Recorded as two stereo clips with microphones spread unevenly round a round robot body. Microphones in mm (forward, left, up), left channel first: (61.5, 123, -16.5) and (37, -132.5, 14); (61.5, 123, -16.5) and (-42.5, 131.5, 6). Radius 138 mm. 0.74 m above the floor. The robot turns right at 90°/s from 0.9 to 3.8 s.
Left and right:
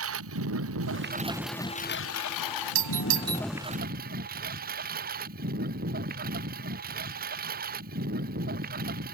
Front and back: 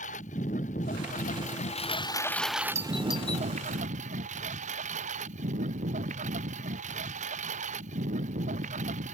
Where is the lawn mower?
60° right; by 9.1 s 160° right.